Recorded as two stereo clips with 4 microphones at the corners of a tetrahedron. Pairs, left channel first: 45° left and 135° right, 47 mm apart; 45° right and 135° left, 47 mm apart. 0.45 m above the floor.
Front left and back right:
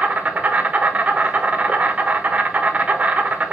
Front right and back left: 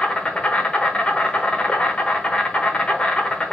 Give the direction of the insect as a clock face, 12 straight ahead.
3 o'clock.